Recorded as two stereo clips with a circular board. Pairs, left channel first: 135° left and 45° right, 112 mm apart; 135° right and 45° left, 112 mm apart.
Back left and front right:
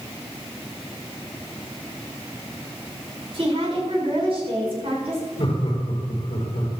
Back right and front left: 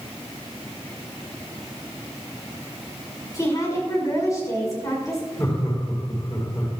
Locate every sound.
3.3 s a woman speaking: 75° right, 6 m
5.4 s laughter: 165° left, 4.5 m